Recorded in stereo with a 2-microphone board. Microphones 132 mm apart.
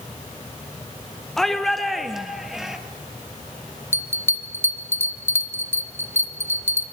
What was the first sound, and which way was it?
A shout, 5° left (ahead or behind).